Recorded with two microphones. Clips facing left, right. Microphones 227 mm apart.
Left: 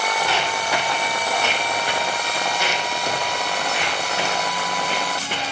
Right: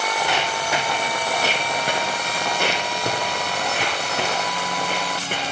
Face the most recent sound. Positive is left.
turn(degrees=-45)  # may be behind; listen again after turning